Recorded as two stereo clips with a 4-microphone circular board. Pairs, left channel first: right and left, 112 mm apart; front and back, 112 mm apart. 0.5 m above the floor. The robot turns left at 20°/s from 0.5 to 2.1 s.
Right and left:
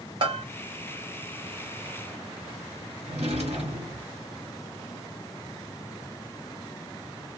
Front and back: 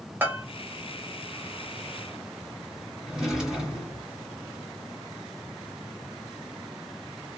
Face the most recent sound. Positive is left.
turn(degrees=95)